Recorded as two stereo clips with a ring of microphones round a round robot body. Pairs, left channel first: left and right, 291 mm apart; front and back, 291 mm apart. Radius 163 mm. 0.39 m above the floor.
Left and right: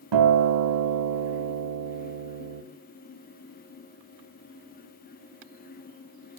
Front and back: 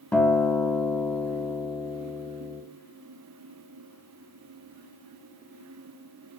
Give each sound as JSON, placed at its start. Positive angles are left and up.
{"t": 0.1, "sound": "a guitar", "azimuth_deg": -85, "distance_m": 0.9}